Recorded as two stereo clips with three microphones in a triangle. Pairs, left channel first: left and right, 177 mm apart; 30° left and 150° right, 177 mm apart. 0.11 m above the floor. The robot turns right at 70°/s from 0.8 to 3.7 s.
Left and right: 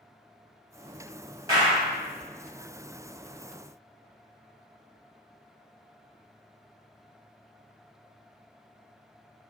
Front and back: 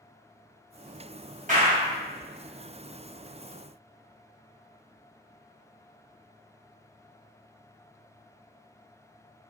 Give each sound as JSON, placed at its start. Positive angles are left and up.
{"t": 1.5, "sound": "a clap", "azimuth_deg": -150, "distance_m": 1.6}